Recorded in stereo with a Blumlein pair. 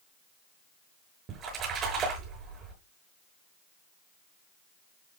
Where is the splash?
30° right, 7 m.